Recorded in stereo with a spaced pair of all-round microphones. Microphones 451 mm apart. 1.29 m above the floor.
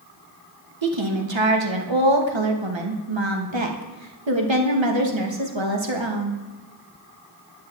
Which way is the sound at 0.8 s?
90° right.